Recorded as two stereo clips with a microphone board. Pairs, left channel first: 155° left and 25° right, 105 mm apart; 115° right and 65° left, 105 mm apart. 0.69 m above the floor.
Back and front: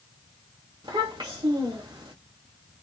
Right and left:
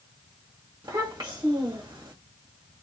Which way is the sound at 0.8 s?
10° left.